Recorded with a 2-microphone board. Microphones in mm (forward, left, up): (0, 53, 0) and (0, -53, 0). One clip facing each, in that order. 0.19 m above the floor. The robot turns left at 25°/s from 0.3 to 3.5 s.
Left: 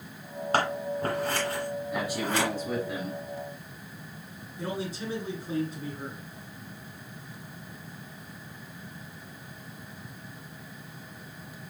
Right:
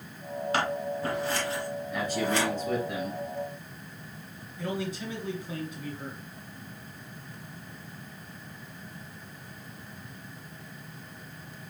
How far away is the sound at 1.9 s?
About 1.3 m.